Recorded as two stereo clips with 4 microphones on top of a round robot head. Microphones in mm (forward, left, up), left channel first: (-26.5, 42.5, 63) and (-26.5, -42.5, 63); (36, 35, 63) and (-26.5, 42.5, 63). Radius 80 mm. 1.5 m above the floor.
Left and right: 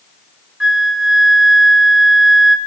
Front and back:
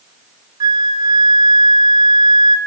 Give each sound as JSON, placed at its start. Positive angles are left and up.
{"t": 0.6, "sound": "a flute", "azimuth_deg": -175, "distance_m": 4.0}